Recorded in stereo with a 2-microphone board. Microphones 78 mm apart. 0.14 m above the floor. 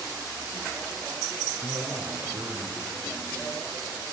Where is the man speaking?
70° right (ahead or behind), 3.5 m.